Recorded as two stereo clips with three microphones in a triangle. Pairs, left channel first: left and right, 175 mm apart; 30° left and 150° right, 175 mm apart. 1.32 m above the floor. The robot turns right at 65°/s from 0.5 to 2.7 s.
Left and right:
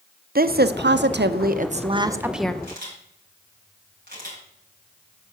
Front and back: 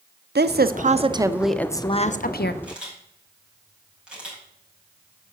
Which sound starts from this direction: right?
A camera shutter, at 2.6 s.